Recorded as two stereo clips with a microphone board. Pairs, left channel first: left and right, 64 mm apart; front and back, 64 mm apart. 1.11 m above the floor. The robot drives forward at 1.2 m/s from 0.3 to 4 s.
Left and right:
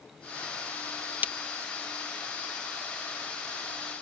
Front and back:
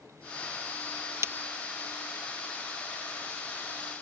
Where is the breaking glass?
150° right.